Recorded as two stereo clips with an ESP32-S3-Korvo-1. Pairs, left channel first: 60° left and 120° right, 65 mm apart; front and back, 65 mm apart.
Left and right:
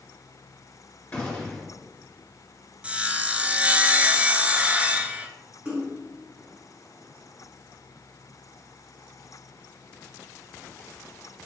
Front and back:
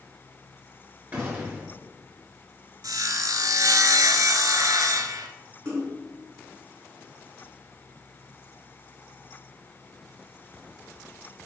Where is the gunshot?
130° left, 2.5 m.